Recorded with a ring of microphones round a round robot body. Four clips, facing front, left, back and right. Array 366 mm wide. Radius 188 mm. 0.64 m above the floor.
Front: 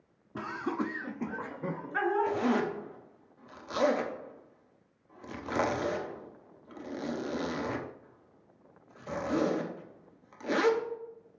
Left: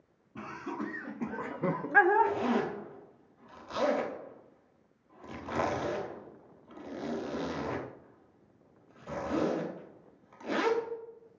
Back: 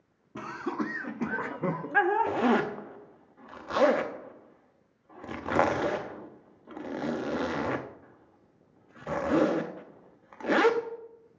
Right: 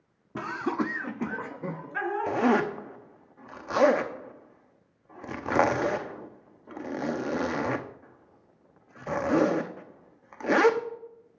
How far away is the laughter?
About 1.2 m.